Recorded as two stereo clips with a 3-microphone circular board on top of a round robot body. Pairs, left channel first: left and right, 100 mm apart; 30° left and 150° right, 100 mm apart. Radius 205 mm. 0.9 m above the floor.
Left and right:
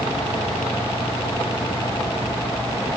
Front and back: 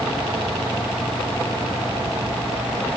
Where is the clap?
I don't hear a clap.